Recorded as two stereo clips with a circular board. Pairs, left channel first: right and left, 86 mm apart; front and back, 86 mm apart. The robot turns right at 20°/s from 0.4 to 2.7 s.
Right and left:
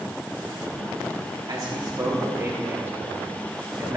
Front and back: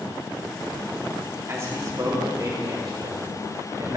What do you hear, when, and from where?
1.5 s a man speaking: 125° left, 2.5 m; by 4.0 s 145° left, 2.5 m